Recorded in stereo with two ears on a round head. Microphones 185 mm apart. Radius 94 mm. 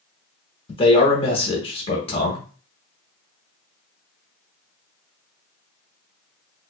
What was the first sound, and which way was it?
A man speaking, 25° left (ahead or behind).